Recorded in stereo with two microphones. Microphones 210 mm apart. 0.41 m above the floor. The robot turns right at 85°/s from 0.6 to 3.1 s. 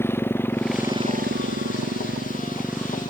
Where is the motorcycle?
10° left (ahead or behind); by 3.1 s 25° left (ahead or behind).